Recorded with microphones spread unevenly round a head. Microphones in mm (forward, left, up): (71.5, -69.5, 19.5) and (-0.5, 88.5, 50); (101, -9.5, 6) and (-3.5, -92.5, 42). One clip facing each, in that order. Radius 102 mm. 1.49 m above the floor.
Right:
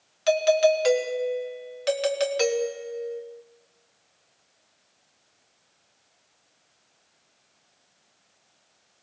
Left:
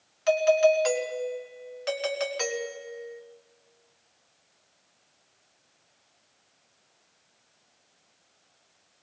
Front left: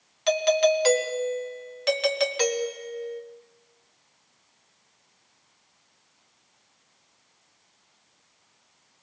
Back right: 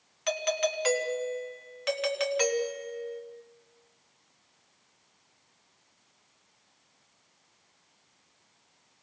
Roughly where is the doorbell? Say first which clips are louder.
Right 1 dB, front left 9 dB; ahead.